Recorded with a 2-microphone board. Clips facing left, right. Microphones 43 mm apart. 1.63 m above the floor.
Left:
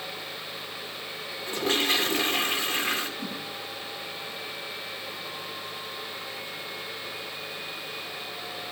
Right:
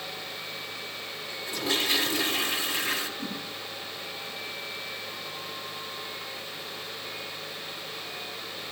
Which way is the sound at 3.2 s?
55° left (ahead or behind).